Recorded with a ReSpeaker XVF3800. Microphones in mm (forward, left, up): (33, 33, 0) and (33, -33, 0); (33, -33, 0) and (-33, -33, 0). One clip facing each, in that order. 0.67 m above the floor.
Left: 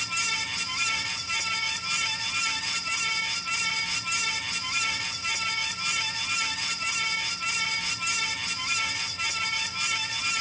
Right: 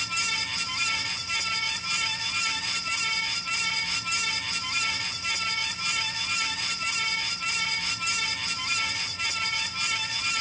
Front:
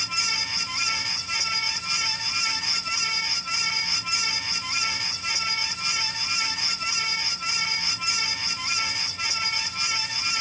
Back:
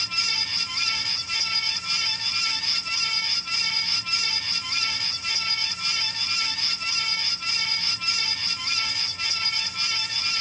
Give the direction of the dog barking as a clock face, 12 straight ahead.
I don't hear a dog barking.